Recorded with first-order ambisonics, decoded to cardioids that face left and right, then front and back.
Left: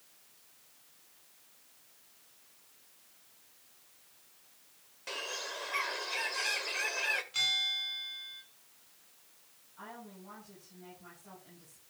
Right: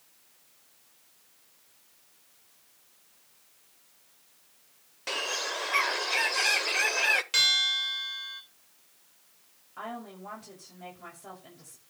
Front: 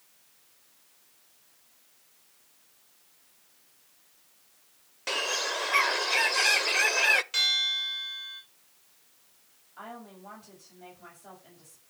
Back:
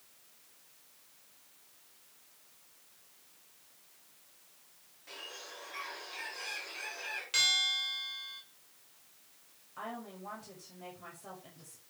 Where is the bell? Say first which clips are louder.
Right 7 dB, front 3 dB; 95° right, 4.5 m.